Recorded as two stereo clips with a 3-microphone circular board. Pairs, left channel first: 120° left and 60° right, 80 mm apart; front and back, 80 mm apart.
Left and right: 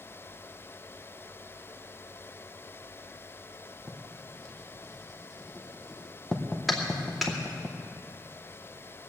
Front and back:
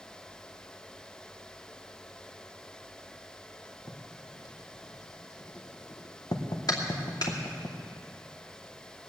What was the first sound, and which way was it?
Writing, 35° left.